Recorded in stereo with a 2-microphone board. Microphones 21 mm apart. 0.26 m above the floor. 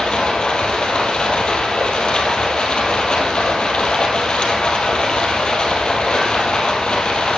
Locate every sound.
0.0 s running water: 40° left (ahead or behind), 2.5 m